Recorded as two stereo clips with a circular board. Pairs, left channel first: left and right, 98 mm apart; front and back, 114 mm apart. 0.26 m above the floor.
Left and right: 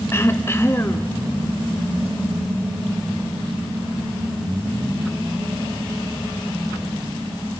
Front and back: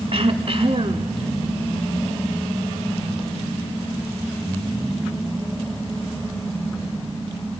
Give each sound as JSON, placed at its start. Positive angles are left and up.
{"t": 0.1, "sound": "throat clearing", "azimuth_deg": 150, "distance_m": 0.7}